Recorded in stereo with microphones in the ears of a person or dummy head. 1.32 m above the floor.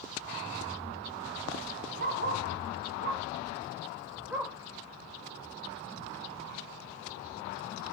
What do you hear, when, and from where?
2.0 s a dog barking: 55° right (ahead or behind), 1.6 m; by 4.5 s 5° right (ahead or behind), 1.8 m